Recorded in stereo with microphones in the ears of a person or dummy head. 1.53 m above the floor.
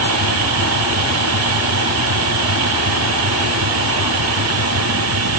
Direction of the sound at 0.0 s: 80° right.